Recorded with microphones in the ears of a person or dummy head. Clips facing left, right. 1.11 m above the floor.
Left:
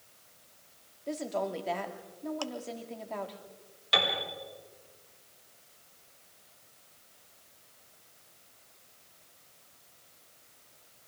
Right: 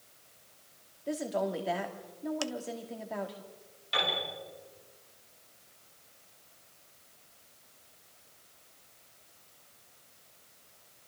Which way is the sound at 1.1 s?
5° right (ahead or behind).